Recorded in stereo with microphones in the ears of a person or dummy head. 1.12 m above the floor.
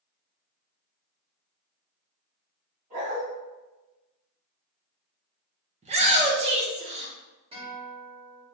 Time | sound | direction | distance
2.9 | a dog barking | 45° right (ahead or behind) | 2.0 m
5.8 | a shout | 35° right (ahead or behind) | 0.7 m
7.5 | a guitar | 30° right (ahead or behind) | 1.7 m